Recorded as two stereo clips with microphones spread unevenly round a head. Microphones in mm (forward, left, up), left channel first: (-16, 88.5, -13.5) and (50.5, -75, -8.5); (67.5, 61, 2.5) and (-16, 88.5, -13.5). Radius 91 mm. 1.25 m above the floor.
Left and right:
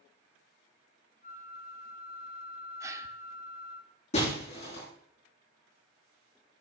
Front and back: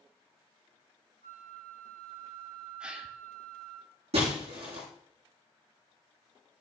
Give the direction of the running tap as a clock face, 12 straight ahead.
No running tap in this recording.